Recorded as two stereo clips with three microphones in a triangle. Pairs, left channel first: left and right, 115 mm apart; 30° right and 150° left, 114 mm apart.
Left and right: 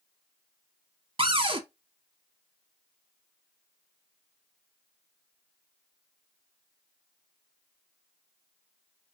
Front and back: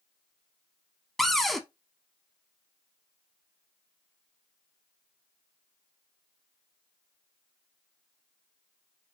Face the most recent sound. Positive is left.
turn(degrees=-120)